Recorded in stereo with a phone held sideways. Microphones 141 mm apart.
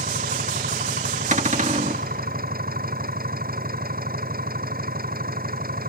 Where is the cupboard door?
55° right (ahead or behind).